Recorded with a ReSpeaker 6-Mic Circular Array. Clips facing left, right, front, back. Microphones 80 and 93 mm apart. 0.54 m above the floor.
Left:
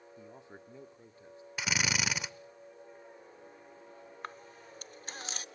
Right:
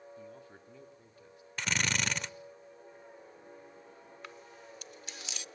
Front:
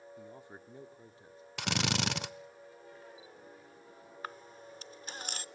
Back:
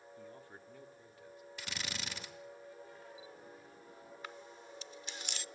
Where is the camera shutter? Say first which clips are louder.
Left 4 dB, front 6 dB; 45° left, 0.6 m.